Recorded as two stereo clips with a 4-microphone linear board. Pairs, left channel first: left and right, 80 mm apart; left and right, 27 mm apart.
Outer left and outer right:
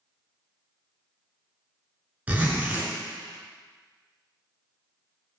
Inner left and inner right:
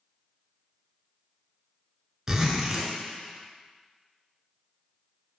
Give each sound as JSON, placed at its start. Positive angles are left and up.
{"t": 2.3, "sound": "a zipper", "side_deg": -20, "distance_m": 1.1}